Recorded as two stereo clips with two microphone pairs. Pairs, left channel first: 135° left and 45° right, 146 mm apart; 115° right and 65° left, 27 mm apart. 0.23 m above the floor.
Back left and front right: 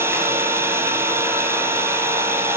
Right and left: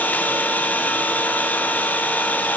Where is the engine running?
120° right, 2.5 m.